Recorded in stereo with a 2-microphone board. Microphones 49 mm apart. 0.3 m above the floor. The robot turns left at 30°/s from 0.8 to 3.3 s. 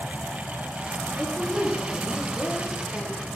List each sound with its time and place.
1.2 s a woman speaking: 175° right, 6 m; by 3.3 s 125° left, 6 m